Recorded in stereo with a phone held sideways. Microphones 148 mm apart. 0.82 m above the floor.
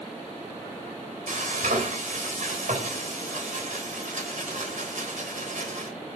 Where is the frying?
70° right (ahead or behind), 3.5 m.